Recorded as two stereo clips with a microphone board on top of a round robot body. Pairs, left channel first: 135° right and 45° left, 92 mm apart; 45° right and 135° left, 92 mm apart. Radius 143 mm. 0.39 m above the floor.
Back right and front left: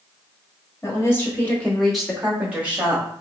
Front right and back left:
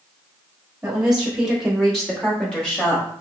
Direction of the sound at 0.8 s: 155° right.